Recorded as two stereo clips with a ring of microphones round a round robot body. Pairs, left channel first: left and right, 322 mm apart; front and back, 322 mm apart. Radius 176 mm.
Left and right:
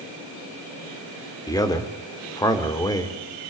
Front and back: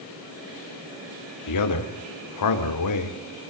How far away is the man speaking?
About 2.5 m.